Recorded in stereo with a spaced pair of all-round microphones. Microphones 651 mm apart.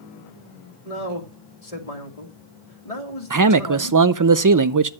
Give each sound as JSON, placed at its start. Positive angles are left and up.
{"t": 0.8, "sound": "a man speaking", "side_deg": 65, "distance_m": 2.0}
{"t": 3.3, "sound": "a man speaking", "side_deg": -30, "distance_m": 0.6}